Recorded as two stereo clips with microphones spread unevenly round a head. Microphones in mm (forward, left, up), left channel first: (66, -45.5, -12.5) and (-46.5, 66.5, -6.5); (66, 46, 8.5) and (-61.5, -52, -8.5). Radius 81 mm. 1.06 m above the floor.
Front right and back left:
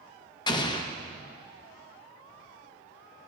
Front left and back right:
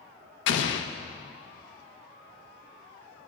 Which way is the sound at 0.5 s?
20° left.